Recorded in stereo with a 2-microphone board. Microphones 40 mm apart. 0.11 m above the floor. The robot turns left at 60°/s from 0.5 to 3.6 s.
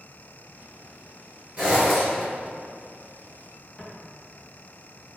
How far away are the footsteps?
About 1.9 m.